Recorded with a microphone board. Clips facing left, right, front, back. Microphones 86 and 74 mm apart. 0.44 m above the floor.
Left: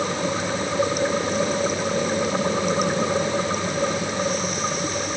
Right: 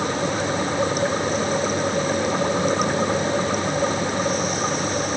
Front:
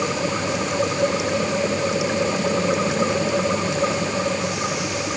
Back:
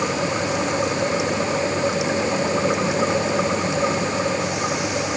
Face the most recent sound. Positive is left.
No sound to turn to.